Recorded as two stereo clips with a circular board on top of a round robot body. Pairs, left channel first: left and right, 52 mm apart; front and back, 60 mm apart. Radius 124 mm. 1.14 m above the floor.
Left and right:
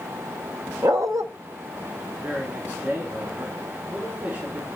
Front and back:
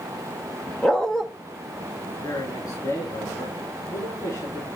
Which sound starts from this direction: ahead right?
A man speaking, at 2.2 s.